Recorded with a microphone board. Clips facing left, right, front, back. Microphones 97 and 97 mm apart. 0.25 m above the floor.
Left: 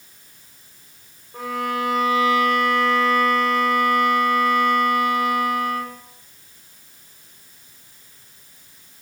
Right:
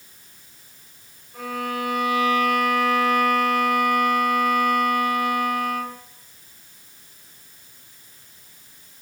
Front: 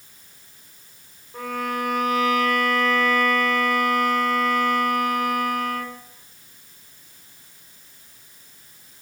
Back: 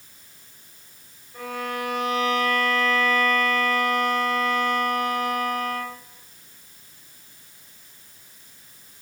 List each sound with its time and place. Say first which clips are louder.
1.3 s a violin: left 3 dB, front 3 dB; 30° left, 3 m